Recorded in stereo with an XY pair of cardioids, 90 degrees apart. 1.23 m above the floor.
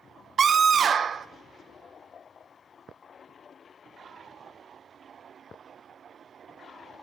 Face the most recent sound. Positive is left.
turn(degrees=-55)